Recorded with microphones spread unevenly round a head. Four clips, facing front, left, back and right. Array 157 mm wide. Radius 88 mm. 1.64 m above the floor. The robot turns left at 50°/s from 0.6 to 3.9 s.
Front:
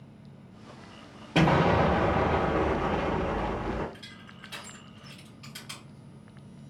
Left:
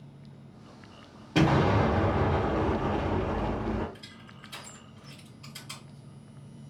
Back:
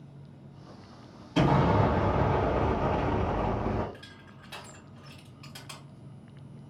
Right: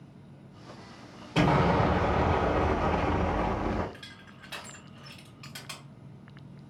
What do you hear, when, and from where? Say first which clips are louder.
1.4 s an explosion: even, front 1 dB; 25° left, 2 m; by 3.8 s 100° right, 2 m
3.9 s crushing: even, front 1 dB; 90° right, 2.5 m